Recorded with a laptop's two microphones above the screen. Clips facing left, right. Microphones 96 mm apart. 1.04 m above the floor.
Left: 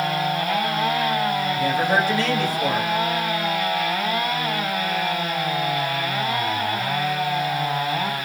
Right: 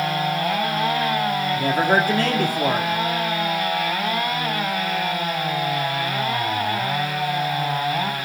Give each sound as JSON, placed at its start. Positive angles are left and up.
{"t": 1.6, "sound": "a man speaking", "side_deg": -50, "distance_m": 2.5}